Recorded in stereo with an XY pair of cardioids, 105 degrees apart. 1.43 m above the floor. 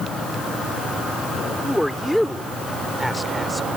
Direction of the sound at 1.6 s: Straight ahead.